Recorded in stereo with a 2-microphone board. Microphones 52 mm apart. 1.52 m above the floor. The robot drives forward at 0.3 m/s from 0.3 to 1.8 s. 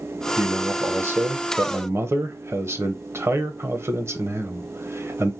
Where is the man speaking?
45° right (ahead or behind), 1.0 m; by 5.3 s 60° right (ahead or behind), 0.9 m.